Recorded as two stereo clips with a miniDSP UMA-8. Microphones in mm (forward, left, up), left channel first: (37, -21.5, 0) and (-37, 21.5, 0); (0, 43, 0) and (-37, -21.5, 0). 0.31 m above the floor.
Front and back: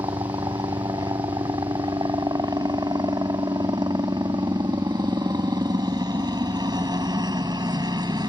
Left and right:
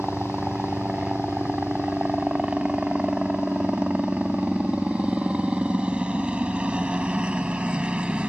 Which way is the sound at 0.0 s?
165° left.